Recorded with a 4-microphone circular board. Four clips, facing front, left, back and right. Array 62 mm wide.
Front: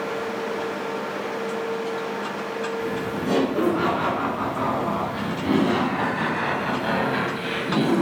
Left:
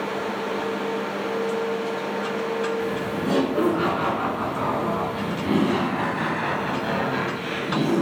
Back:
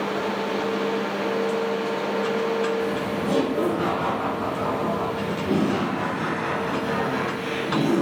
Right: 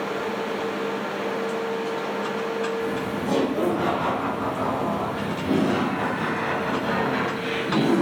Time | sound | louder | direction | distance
2.8 | laughter | left 1 dB, back 1 dB | 50° left | 3 m